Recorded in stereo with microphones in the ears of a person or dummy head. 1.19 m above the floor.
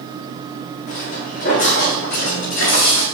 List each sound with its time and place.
0.9 s footsteps: 50° left (ahead or behind), 6.5 m; by 3.0 s 60° left (ahead or behind), 7 m